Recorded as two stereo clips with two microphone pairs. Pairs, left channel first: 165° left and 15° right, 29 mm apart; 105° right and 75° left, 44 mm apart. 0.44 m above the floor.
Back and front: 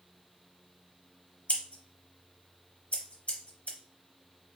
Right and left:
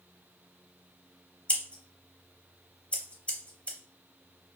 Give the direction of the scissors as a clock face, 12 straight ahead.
5 o'clock.